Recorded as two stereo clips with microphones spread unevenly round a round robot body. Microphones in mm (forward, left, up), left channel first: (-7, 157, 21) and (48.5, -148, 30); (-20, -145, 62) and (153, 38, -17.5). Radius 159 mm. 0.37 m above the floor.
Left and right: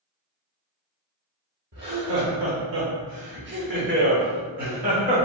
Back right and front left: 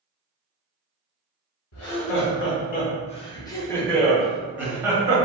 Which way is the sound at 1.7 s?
120° right.